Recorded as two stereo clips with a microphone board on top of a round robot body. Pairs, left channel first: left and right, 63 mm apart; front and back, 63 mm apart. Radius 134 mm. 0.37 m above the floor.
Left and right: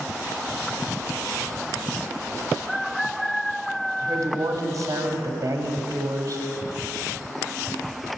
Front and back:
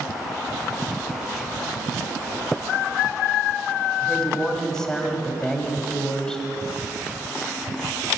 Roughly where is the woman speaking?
Right.